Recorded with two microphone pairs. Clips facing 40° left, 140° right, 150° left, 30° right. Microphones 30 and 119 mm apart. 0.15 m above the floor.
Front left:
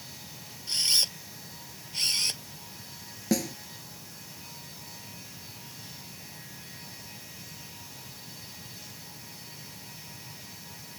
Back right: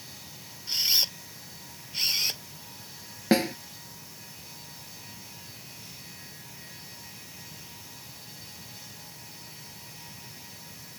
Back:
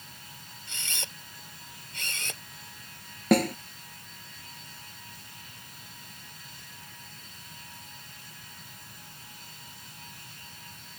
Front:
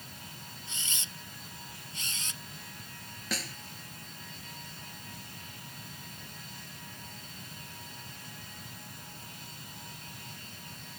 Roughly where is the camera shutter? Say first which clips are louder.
Back right 1 dB, back 5 dB; behind left.